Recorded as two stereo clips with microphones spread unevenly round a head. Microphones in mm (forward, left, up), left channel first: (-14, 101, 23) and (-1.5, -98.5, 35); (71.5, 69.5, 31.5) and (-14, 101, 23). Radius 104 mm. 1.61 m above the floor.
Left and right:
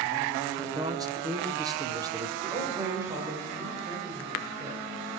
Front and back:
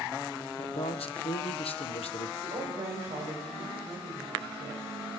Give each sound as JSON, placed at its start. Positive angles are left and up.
{"t": 0.6, "sound": "a man speaking", "azimuth_deg": -15, "distance_m": 1.1}
{"t": 2.4, "sound": "a woman speaking", "azimuth_deg": -160, "distance_m": 6.0}